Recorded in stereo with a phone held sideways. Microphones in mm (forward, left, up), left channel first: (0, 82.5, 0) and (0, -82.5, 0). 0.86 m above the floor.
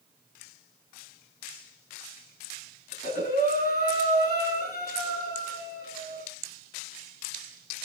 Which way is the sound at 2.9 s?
60° left (ahead or behind).